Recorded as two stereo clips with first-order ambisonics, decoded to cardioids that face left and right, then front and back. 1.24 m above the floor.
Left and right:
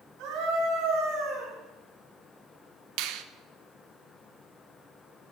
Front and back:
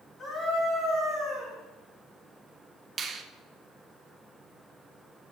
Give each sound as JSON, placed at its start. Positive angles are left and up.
{"t": 0.2, "sound": "a scream", "azimuth_deg": -75, "distance_m": 4.5}
{"t": 3.0, "sound": "a finger snap", "azimuth_deg": -115, "distance_m": 0.5}